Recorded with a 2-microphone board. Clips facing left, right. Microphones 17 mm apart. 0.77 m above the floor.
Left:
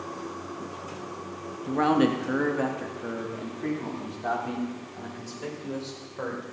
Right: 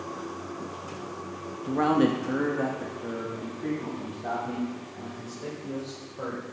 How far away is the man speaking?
About 1.1 m.